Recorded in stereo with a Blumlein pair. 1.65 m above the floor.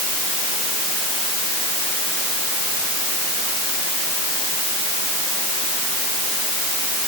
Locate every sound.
Only background noise.